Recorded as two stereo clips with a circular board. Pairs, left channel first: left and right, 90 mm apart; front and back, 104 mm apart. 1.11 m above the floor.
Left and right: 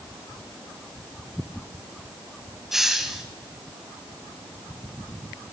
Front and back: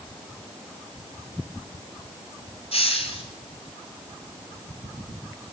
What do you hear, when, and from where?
2.7 s a hiss: 5° right, 2 m